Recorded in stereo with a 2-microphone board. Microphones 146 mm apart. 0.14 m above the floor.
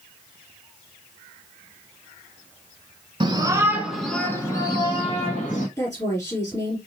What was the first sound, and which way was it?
A shout, 30° right (ahead or behind).